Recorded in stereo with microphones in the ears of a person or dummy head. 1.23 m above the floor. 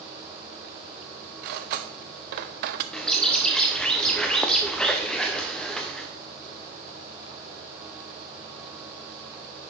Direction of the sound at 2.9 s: 5° left (ahead or behind).